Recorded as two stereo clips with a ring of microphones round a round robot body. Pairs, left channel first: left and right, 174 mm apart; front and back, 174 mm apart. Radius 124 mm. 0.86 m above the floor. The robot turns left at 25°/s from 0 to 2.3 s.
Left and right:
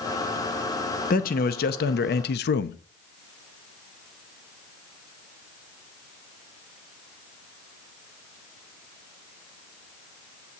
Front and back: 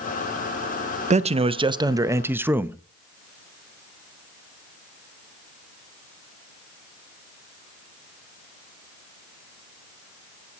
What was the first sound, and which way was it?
A man speaking, 130° left.